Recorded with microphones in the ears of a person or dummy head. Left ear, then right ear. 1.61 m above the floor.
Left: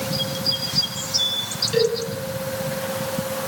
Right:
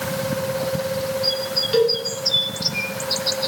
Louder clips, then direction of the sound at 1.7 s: Right 2 dB; 10° right (ahead or behind).